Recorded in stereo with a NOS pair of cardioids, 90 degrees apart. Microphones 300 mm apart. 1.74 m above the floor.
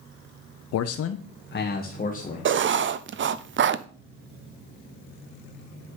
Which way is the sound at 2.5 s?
40° right.